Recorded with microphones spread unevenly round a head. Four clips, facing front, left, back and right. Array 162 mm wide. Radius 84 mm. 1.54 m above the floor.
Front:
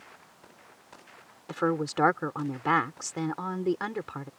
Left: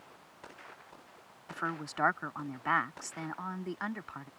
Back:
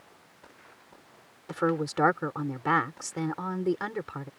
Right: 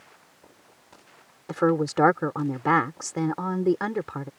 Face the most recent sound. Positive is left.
turn(degrees=-85)